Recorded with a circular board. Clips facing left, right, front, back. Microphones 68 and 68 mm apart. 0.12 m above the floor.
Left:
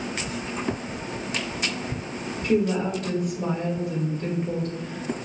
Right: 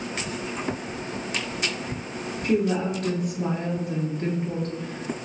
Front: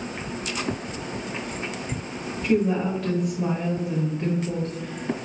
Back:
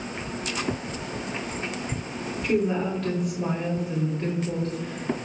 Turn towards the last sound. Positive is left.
turn(degrees=-90)